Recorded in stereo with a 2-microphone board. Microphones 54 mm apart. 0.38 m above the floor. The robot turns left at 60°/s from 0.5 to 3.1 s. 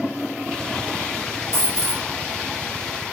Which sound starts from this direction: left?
A dropped coin, at 1.5 s.